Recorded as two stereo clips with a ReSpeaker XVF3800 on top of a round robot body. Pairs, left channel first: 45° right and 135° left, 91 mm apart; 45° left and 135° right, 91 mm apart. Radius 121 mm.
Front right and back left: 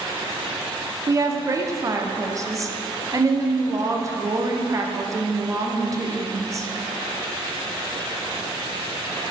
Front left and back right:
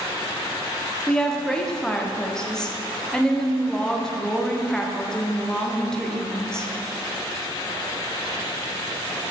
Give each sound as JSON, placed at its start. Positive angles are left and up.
{"t": 1.1, "sound": "a woman speaking", "azimuth_deg": 125, "distance_m": 0.8}